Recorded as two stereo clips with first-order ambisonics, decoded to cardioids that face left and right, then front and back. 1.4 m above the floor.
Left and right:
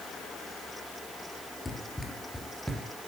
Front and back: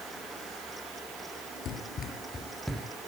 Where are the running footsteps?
20° left, 1.7 m; by 2.9 s 150° right, 1.3 m.